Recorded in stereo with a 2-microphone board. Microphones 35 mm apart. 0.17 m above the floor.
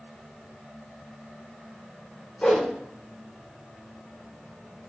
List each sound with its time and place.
2.4 s a whoosh: 35° left (ahead or behind), 3.5 m